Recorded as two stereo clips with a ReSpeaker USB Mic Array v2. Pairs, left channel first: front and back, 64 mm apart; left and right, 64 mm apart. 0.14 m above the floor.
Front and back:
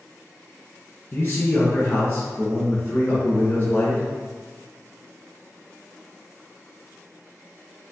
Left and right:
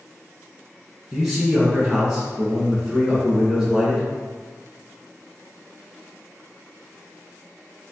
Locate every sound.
1.1 s a man speaking: 20° right, 1.6 m